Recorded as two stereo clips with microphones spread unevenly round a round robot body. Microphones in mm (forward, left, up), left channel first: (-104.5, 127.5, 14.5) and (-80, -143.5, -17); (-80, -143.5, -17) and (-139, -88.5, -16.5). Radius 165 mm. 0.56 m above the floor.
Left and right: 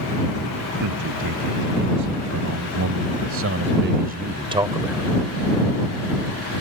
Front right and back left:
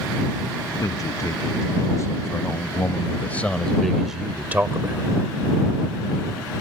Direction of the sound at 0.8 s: 85° right.